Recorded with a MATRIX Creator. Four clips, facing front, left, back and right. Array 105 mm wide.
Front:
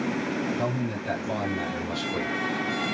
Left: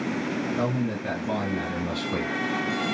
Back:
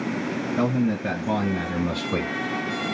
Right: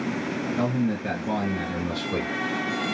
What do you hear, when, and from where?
0.6 s a man speaking: 160° right, 2.5 m; by 2.3 s straight behind, 1.9 m